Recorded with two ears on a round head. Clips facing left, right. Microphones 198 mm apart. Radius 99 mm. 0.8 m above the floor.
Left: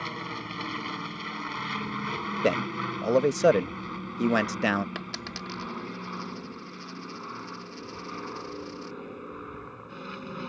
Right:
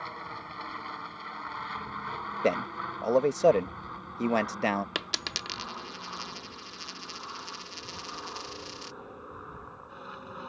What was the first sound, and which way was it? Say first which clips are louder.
An aircraft: left 7 dB; 40° left (ahead or behind).